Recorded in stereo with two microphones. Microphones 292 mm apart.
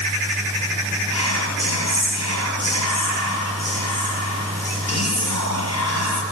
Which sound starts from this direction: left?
Whispering, at 1.1 s.